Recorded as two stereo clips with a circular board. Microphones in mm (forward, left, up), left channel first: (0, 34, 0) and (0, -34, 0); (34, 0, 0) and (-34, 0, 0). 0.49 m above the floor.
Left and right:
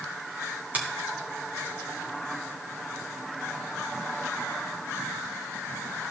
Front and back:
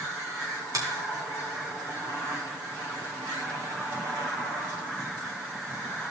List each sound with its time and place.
0.7 s a finger snap: 155° right, 3 m